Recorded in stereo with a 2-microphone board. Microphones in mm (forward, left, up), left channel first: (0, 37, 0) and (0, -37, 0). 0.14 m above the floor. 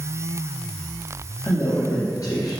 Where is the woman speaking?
45° left (ahead or behind), 3 m.